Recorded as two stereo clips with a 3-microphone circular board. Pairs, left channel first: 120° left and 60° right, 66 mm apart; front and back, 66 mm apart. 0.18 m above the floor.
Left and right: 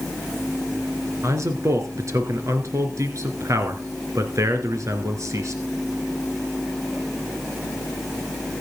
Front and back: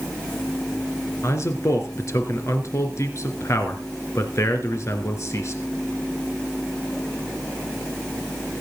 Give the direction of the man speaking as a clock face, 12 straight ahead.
1 o'clock.